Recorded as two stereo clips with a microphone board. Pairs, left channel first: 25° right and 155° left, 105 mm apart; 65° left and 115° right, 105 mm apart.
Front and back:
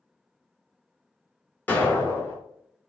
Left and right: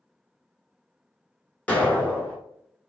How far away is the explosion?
About 0.9 m.